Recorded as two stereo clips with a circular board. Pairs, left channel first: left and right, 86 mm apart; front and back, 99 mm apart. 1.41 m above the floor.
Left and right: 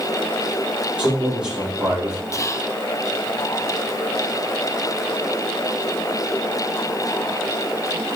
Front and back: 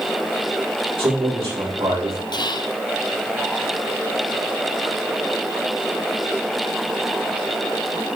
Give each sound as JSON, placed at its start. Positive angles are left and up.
{"t": 1.0, "sound": "a man speaking", "azimuth_deg": -165, "distance_m": 4.0}
{"t": 2.3, "sound": "whispering", "azimuth_deg": 40, "distance_m": 0.5}